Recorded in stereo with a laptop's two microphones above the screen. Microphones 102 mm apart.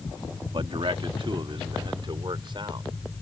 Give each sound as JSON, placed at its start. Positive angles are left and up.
{"t": 0.5, "sound": "a man speaking", "side_deg": -60}